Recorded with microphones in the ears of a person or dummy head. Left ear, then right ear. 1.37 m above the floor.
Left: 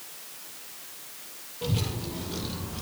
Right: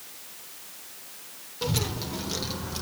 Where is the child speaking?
50° right (ahead or behind), 3 m; by 2.8 s 65° right (ahead or behind), 3 m.